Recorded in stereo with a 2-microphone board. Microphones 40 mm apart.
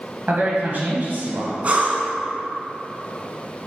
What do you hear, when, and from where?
0.3 s a man speaking: 50° right (ahead or behind), 1.5 m
1.6 s breathing: 35° right (ahead or behind), 0.9 m